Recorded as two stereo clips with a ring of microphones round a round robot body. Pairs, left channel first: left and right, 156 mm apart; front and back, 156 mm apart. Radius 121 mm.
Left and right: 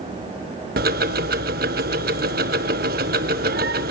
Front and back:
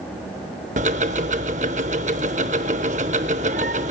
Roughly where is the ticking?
Behind right.